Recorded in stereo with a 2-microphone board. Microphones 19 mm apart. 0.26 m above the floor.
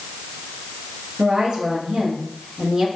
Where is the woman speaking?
30° right (ahead or behind), 4 m.